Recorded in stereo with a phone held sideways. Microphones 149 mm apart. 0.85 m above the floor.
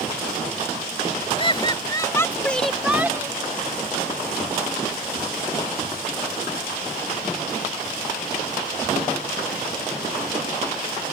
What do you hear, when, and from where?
1.4 s laughter: 35° left (ahead or behind); by 3.4 s 25° right (ahead or behind)